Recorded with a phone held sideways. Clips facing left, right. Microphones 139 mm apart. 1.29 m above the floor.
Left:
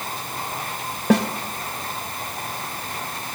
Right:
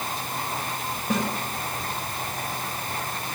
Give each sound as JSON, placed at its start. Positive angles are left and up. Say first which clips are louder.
{"t": 1.1, "sound": "a snare drum", "louder": "left 8 dB", "side_deg": 75, "distance_m": 2.0}